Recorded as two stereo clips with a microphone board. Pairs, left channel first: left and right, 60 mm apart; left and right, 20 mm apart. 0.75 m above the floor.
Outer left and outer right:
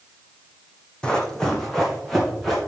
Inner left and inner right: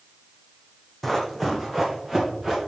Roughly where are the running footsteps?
Centre.